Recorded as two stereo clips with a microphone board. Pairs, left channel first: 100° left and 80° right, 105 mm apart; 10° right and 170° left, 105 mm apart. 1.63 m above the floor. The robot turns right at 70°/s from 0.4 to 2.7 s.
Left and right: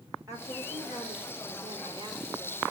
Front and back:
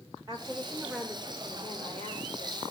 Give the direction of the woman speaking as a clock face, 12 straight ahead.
5 o'clock.